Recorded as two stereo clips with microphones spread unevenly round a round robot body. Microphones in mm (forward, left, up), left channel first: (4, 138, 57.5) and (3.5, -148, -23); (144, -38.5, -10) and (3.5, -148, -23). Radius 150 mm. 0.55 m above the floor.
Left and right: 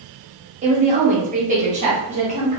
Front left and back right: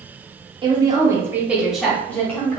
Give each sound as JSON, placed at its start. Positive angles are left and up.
{"t": 0.6, "sound": "a woman speaking", "azimuth_deg": -105, "distance_m": 1.1}